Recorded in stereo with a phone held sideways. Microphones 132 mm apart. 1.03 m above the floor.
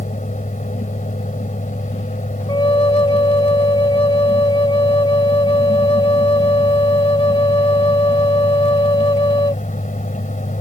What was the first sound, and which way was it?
A fan, 75° left (ahead or behind).